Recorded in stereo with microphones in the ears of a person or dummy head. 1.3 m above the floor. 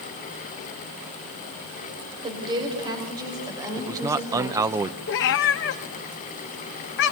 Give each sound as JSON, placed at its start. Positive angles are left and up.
{"t": 2.2, "sound": "a woman speaking", "side_deg": -30, "distance_m": 6.0}
{"t": 3.8, "sound": "a man speaking", "side_deg": -20, "distance_m": 0.7}
{"t": 5.1, "sound": "a cat meowing", "side_deg": 60, "distance_m": 1.0}